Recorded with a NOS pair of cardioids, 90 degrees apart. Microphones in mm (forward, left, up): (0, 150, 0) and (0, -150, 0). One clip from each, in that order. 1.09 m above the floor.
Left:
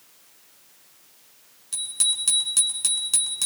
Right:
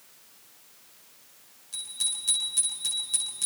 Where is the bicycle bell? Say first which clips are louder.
Left 7 dB; 70° left, 9 m; by 3.5 s 60° left, 8 m.